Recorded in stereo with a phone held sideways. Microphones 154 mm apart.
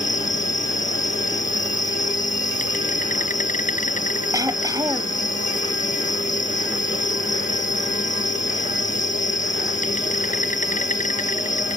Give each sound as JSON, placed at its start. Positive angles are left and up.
{"t": 0.0, "sound": "an insect", "side_deg": 55}
{"t": 4.3, "sound": "throat clearing", "side_deg": -25}